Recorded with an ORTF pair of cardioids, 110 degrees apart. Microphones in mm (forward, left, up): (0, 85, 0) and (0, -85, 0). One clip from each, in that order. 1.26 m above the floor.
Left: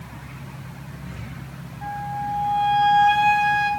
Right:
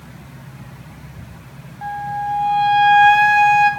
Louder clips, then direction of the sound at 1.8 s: Right 5 dB; 40° right.